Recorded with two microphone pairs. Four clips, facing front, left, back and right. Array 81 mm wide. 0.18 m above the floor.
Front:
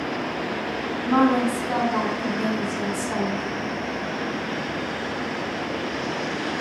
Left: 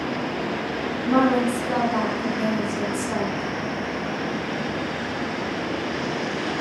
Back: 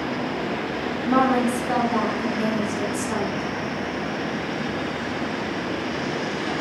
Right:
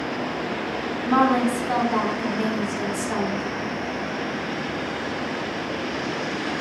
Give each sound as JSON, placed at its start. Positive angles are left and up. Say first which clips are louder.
{"t": 1.1, "sound": "a woman speaking", "louder": "even, even", "azimuth_deg": -85, "distance_m": 1.2}